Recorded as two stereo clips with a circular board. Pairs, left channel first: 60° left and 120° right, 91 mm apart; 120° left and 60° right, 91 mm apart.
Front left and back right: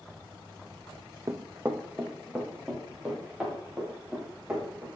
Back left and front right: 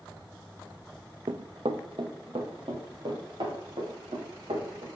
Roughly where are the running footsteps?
Ahead right.